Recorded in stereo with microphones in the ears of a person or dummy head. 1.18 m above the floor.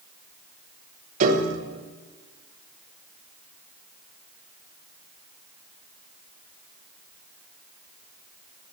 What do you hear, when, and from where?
1.2 s a piano: 50° right (ahead or behind), 0.9 m